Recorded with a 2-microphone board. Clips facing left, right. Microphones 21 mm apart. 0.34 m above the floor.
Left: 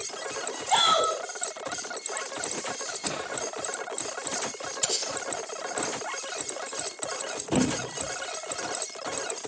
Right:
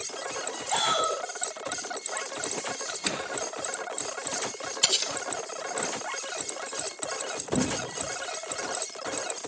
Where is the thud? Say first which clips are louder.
Left 3 dB; 85° left, 3 m.